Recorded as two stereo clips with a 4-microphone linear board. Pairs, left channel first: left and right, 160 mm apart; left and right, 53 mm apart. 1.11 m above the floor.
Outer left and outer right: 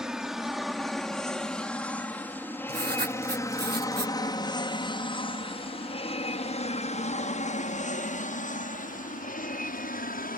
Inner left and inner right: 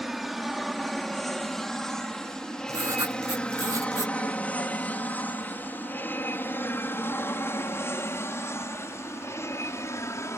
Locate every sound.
0.0 s an aircraft: 5° right (ahead or behind); by 10.4 s 60° left (ahead or behind)
2.7 s writing: 80° right